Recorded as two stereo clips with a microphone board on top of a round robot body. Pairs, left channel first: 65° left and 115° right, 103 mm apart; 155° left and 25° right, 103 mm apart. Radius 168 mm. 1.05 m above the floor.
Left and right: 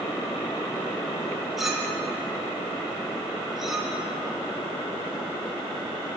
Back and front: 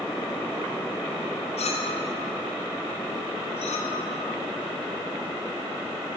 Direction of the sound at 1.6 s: 160° left.